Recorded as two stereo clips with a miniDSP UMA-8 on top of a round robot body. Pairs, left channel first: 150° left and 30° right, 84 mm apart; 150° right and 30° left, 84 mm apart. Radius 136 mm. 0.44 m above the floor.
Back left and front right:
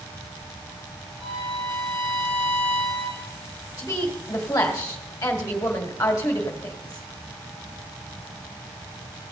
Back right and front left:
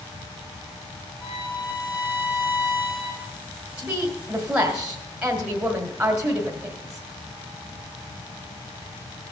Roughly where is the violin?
Ahead right.